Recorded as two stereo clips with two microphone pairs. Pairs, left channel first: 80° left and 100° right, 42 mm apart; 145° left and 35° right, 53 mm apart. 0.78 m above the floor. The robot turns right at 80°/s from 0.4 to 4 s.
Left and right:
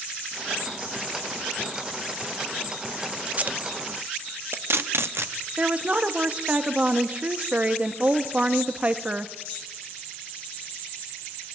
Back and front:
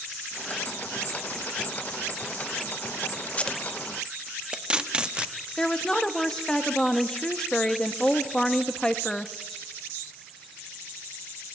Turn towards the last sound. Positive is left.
turn(degrees=-140)